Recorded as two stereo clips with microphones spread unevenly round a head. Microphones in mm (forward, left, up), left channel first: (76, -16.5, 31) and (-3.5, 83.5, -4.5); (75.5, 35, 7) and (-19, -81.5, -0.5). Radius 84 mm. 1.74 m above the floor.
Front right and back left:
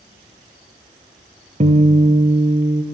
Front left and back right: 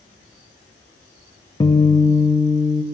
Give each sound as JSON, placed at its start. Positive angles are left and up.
{"t": 1.6, "sound": "a guitar", "azimuth_deg": 100, "distance_m": 0.6}